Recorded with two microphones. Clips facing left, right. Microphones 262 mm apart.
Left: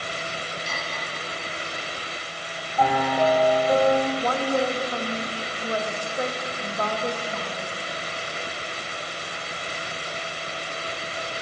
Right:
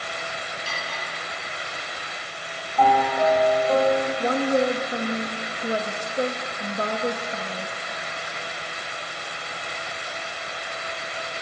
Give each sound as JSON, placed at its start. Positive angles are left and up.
{"t": 0.7, "sound": "cutlery clinking", "side_deg": 20, "distance_m": 4.0}
{"t": 2.8, "sound": "a piano", "side_deg": 10, "distance_m": 1.4}
{"t": 4.2, "sound": "a woman speaking", "side_deg": -25, "distance_m": 0.5}